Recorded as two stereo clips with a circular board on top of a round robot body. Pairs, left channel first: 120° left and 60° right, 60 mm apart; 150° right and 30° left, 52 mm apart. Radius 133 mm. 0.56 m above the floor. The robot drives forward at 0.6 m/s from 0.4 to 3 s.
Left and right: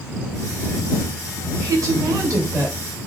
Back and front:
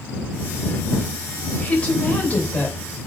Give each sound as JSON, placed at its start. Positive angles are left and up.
{"t": 1.6, "sound": "a woman speaking", "azimuth_deg": -85, "distance_m": 3.0}